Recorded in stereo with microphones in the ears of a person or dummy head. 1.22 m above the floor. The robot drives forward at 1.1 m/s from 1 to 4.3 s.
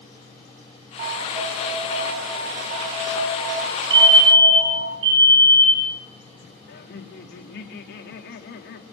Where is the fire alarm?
25° right (ahead or behind), 5.5 m.